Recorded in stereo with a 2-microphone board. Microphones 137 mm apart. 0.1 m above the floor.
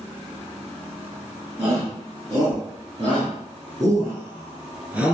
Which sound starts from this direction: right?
A shout, at 1.6 s.